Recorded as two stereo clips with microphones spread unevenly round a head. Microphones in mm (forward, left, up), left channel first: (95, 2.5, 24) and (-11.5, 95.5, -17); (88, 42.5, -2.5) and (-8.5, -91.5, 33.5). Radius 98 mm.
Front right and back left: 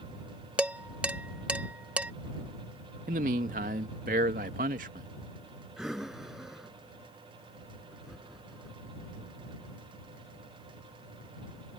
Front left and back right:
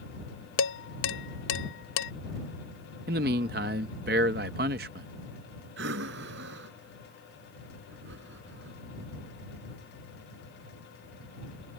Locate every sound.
0.6 s dishes clattering: 50° left
3.1 s a man speaking: 165° right
5.8 s breathing: 130° right